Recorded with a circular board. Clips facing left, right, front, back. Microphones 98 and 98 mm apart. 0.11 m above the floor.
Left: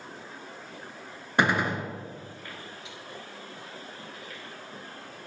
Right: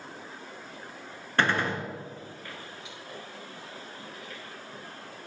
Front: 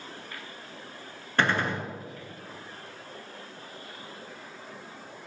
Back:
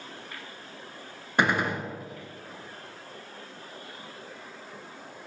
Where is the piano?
I don't hear a piano.